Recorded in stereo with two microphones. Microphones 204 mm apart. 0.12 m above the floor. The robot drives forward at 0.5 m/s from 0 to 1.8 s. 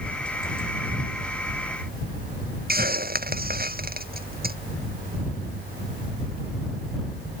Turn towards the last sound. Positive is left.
turn(degrees=-50)  # may be behind; listen again after turning